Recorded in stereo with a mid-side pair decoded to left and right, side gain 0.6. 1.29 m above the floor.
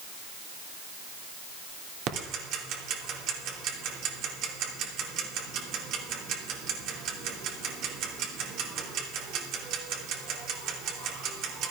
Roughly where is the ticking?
Ahead right.